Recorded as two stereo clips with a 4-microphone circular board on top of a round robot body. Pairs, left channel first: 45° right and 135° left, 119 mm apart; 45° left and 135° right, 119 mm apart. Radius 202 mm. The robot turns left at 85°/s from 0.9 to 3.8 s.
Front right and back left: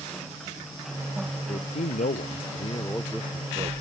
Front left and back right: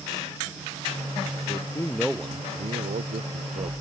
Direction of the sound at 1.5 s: 5° left.